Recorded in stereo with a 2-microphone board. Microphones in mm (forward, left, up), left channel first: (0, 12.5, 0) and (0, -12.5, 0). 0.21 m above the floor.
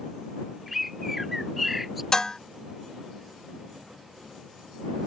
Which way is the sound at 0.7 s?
10° right (ahead or behind).